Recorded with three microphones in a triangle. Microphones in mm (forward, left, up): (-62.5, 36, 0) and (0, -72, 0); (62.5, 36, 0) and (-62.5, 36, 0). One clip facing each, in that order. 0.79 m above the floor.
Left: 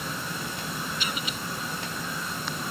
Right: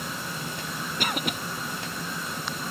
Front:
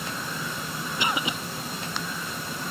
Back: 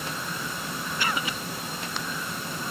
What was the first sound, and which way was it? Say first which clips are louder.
A cough: right 4 dB, front 2 dB; 65° right.